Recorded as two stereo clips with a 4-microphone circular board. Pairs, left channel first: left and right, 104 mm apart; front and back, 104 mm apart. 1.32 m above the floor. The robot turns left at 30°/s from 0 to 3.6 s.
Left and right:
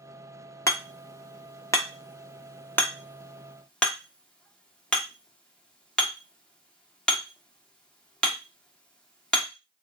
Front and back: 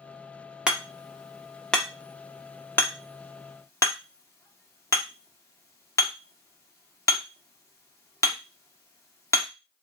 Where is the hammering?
105° left, 0.9 m; by 9.5 s 20° left, 0.9 m.